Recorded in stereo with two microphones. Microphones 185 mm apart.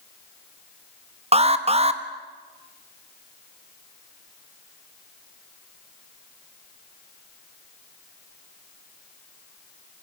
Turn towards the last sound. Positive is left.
turn(degrees=-35)  # may be behind; listen again after turning